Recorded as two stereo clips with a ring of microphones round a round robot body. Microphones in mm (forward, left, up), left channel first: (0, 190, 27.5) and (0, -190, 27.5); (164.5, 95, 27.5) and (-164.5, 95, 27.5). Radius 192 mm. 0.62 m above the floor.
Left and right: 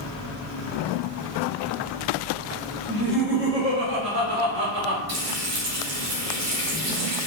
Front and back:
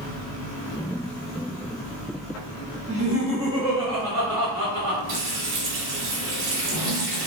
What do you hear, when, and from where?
2.9 s laughter: 150° left, 1.2 m; by 5.0 s 100° right, 1.9 m
5.1 s frying: 145° right, 0.9 m